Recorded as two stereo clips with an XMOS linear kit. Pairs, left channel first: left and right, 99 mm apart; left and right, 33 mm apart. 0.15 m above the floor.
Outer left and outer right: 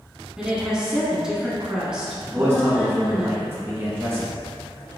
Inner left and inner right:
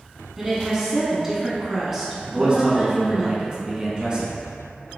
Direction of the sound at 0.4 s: 10° right (ahead or behind).